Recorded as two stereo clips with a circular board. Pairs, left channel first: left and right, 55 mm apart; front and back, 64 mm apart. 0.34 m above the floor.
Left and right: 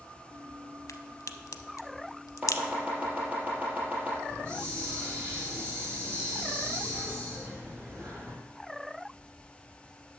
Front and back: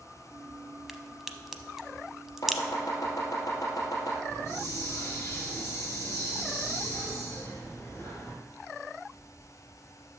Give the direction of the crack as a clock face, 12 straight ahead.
9 o'clock.